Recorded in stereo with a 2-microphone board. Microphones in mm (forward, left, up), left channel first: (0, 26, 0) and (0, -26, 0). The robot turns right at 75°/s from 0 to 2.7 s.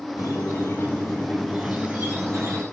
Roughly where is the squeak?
Left.